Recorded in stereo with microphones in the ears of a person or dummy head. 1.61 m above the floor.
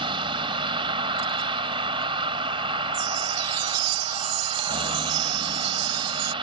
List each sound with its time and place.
0.0 s a vehicle: 30° right (ahead or behind)
2.9 s a chime: 80° right